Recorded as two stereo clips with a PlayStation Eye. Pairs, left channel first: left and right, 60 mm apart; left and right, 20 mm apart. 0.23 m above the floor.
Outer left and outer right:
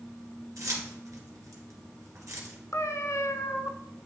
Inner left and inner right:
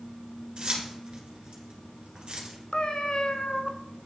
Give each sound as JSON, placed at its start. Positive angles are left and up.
{"t": 0.6, "sound": "keys jangling", "side_deg": -65, "distance_m": 2.0}
{"t": 2.7, "sound": "a cat meowing", "side_deg": 65, "distance_m": 0.7}